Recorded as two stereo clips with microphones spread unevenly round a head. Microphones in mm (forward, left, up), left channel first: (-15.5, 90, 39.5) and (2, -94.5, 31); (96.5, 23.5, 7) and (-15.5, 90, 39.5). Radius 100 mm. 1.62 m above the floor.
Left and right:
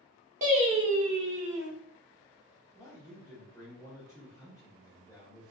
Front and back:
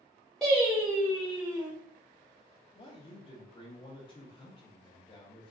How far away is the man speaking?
About 0.8 m.